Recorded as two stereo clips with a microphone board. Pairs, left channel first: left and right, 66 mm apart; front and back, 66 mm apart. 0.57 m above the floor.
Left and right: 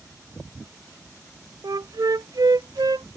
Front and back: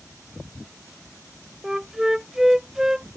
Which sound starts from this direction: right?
A flute, at 1.6 s.